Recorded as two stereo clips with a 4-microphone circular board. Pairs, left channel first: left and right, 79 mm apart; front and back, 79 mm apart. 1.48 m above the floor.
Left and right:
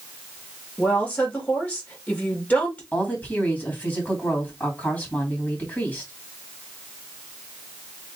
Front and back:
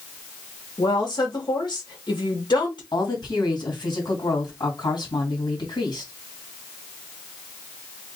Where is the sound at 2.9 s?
25° left, 2.5 m.